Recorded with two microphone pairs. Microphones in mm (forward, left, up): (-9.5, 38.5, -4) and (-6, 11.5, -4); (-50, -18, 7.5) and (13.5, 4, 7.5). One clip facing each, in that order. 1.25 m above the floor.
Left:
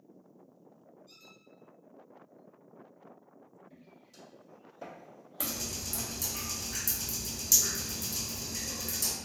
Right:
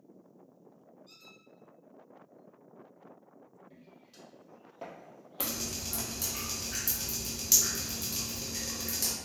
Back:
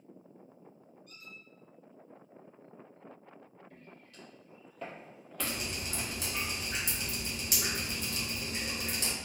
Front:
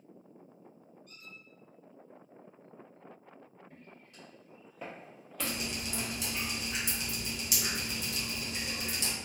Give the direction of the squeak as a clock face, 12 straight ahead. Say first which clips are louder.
Right 2 dB, back 2 dB; 2 o'clock.